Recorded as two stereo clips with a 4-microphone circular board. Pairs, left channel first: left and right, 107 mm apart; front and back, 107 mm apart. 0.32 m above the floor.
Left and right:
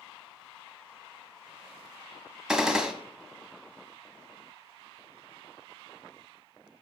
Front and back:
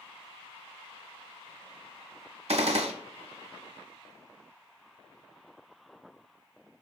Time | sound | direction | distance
2.5 | a gunshot | 175° right | 0.6 m